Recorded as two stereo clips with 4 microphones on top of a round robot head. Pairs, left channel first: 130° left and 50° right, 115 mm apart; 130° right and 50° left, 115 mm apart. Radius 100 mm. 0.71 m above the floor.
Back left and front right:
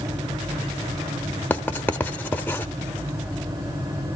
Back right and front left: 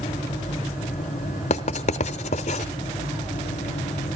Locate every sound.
1.5 s writing: 155° right, 0.6 m